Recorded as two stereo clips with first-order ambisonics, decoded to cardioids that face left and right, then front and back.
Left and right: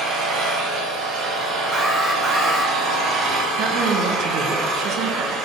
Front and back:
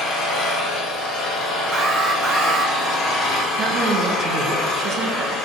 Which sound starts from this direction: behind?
An alarm, at 1.7 s.